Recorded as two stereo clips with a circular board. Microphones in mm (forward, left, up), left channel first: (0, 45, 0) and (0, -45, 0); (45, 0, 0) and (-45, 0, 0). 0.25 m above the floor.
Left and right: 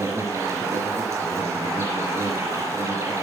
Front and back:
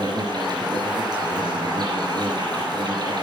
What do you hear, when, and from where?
0.0 s an insect: 145° right, 3.5 m